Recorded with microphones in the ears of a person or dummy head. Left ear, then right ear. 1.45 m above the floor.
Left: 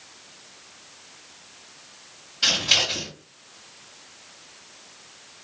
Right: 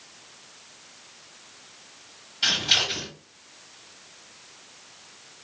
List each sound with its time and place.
2.4 s scissors: 5° left (ahead or behind), 2.0 m